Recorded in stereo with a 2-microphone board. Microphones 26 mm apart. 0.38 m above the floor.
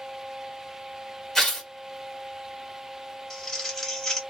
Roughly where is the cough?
I don't hear a cough.